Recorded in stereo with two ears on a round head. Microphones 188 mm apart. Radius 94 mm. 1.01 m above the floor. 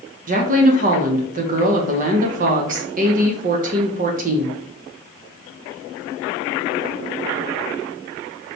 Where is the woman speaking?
40° right (ahead or behind), 0.7 m.